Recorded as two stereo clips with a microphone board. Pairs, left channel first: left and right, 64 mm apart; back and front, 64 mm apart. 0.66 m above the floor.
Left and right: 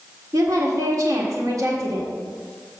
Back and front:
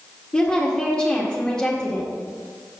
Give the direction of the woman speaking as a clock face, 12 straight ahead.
4 o'clock.